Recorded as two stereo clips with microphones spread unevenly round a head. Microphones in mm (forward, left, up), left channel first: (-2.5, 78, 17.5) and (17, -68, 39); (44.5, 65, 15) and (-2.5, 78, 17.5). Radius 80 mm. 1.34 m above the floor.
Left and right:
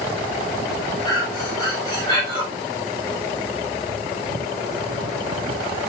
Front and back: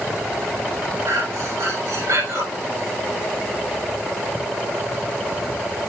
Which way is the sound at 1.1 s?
160° left.